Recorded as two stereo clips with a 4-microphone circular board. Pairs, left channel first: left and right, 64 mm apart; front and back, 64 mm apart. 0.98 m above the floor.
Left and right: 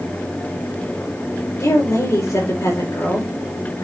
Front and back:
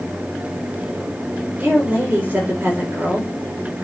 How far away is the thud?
No thud in this recording.